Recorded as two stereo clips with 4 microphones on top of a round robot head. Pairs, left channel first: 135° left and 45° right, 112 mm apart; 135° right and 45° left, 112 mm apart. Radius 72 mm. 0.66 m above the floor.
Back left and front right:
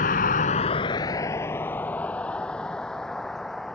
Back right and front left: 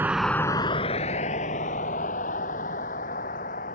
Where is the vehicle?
120° left; by 3.8 s 140° right.